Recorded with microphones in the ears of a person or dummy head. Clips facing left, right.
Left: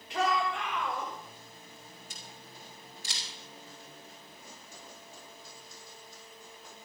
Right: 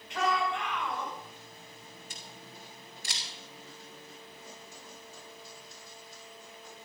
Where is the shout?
30° left (ahead or behind), 5 m; by 1.1 s 40° left (ahead or behind), 6 m.